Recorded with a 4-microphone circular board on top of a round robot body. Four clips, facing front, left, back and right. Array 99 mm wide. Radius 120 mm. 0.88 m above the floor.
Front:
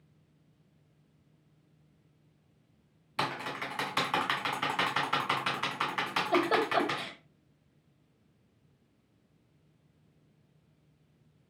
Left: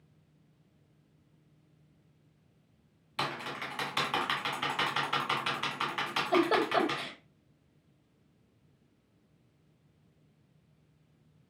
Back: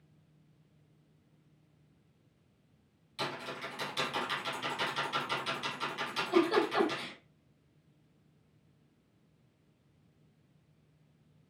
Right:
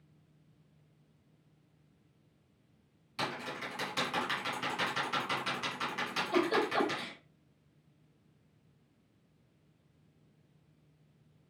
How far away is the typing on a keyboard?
About 1.5 m.